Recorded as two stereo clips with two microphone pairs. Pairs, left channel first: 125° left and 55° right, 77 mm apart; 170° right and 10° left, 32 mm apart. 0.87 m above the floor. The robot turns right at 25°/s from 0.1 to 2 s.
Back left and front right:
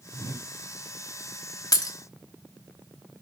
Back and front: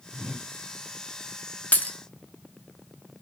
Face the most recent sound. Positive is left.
turn(degrees=165)